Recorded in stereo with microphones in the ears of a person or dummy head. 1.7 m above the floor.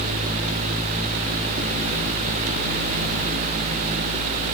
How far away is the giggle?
No giggle in this recording.